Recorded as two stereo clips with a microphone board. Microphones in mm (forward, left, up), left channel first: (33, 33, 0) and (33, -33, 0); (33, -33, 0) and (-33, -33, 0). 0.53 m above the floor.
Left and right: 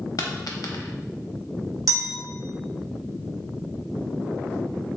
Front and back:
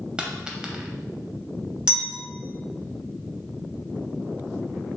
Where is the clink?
110° right, 1.5 m.